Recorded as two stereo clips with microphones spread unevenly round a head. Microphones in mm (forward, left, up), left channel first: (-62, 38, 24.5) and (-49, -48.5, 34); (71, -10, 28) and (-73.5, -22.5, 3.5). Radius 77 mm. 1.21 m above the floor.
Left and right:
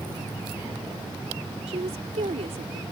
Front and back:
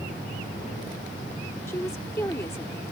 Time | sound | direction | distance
1.7 | a woman speaking | 70° right | ?